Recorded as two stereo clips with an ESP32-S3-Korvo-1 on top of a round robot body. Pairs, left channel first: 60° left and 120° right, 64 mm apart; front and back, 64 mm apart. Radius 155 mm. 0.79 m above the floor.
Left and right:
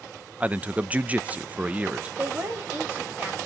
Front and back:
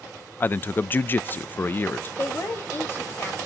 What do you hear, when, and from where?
0.4 s a man speaking: 55° right, 0.6 m
2.2 s a woman speaking: 55° right, 3.5 m